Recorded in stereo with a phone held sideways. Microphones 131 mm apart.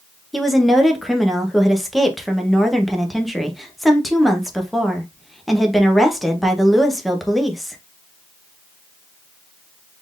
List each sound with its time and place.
0.3 s a woman speaking: centre (ahead or behind), 0.9 m